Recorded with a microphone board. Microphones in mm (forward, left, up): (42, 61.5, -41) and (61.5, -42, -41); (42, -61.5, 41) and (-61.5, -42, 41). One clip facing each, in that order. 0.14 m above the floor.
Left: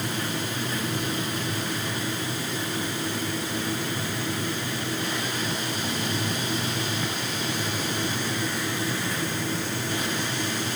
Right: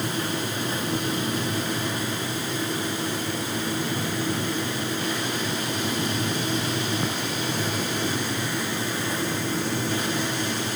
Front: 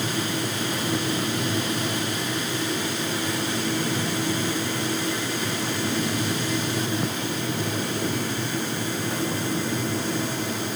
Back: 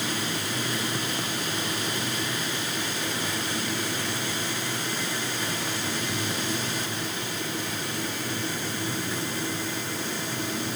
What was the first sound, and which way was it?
Only background noise.